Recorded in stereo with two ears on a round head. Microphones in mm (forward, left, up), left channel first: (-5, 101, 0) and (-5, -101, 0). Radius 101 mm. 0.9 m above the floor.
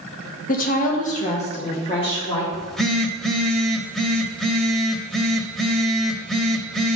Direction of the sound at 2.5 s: Centre (ahead or behind).